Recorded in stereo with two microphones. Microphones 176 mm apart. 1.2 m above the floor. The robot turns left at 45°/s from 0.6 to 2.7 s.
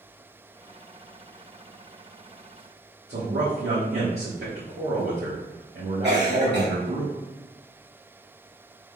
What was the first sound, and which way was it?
A man speaking, 65° right (ahead or behind).